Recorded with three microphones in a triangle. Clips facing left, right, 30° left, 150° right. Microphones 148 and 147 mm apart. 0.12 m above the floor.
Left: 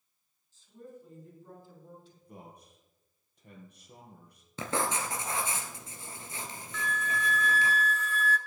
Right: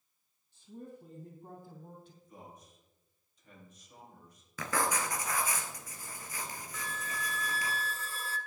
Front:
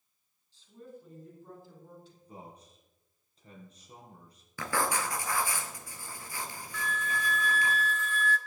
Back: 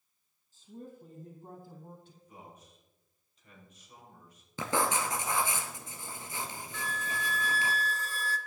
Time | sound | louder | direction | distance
0.5 | a woman speaking | right 1 dB, back 2 dB | 115° right | 3.5 m
2.2 | a man speaking | left 2 dB, front 3 dB | 80° left | 4 m
4.6 | writing | left 1 dB, back 1 dB | 145° left | 1.6 m
6.7 | a flute | left 8 dB, front 3 dB | 130° right | 0.8 m